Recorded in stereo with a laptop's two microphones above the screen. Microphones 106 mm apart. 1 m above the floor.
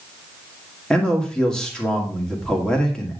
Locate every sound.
0.9 s a man speaking: 10° left (ahead or behind), 1.8 m